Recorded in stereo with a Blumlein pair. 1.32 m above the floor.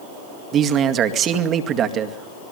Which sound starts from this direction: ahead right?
A man speaking, at 0.5 s.